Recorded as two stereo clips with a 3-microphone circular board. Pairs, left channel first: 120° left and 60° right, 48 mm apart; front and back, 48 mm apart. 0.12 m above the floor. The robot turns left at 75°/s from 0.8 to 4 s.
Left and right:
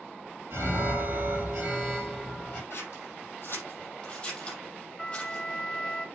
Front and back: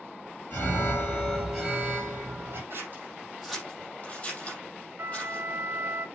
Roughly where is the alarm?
Ahead right.